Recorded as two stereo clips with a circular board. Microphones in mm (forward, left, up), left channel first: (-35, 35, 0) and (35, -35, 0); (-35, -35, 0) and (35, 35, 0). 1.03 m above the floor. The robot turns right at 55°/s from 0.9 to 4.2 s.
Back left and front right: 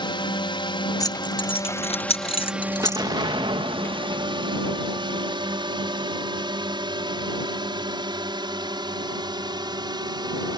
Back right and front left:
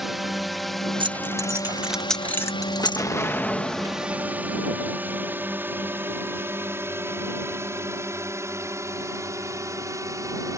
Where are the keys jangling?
80° left; by 3.1 s 165° right.